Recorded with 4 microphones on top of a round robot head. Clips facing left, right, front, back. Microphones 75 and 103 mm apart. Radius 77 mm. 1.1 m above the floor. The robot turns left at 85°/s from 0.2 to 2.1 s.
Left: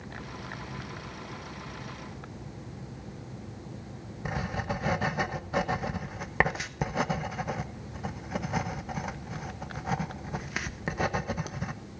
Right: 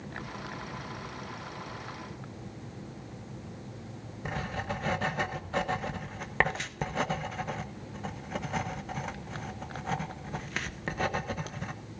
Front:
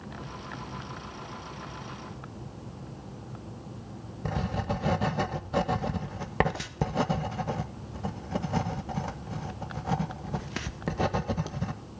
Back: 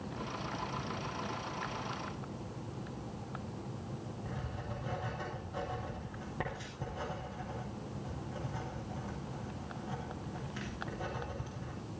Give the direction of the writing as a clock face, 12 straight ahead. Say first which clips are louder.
Left 2 dB, front 16 dB; 12 o'clock.